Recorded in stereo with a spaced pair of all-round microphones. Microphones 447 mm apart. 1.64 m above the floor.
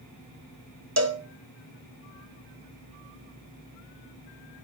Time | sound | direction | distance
1.0 | a cowbell | 35° right (ahead or behind) | 0.8 m